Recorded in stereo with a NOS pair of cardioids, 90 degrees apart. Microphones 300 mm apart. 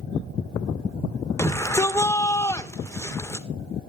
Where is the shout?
10° left, 2.0 m.